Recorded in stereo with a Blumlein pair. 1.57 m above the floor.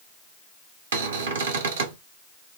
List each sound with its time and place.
0.9 s a cupboard door: 60° right, 0.8 m